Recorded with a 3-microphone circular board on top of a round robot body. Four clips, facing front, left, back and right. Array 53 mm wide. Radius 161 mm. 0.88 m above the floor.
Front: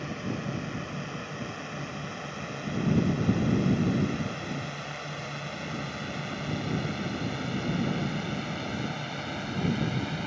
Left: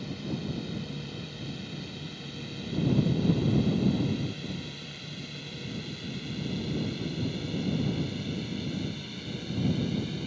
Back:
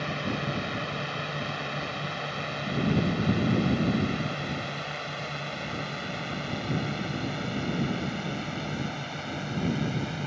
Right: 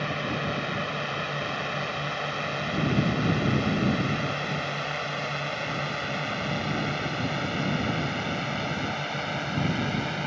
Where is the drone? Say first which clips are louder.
Right 7 dB, back 3 dB; 115° right; by 10.3 s 85° right.